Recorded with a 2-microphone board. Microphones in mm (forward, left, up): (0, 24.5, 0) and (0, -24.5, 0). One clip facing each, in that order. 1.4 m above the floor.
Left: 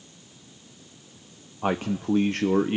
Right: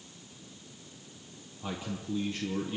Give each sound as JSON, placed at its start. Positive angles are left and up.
{"t": 1.6, "sound": "a man speaking", "side_deg": 60, "distance_m": 0.9}